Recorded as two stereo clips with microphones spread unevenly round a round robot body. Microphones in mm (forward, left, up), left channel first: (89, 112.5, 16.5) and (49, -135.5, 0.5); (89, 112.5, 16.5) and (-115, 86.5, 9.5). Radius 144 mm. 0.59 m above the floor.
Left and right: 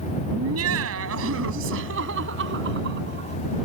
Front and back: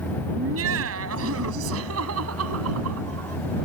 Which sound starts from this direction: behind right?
Laughter, at 0.3 s.